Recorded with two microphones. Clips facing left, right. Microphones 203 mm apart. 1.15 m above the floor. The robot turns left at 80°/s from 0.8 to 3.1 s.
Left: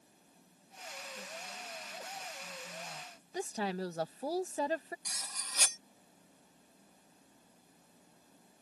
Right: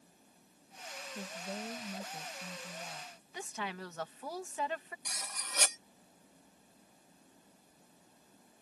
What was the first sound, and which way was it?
A woman speaking, 35° right.